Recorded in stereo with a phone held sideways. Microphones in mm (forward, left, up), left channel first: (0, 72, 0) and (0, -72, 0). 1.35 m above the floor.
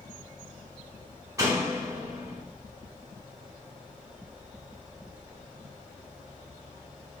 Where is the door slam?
25° right (ahead or behind), 3.5 m.